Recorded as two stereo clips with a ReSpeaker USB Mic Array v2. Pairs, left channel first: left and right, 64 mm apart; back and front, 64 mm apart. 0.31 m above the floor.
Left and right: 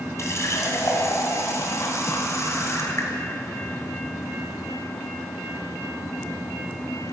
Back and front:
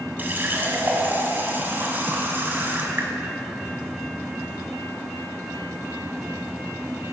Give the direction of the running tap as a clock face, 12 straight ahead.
10 o'clock.